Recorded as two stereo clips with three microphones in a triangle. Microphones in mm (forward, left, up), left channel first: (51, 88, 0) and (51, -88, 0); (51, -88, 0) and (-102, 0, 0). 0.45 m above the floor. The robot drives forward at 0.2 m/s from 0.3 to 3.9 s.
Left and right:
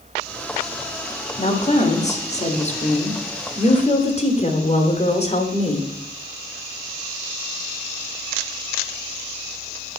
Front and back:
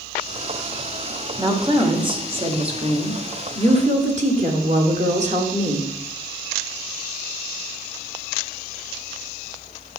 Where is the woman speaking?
100° left, 1.4 m; by 5.9 s 125° left, 1.5 m.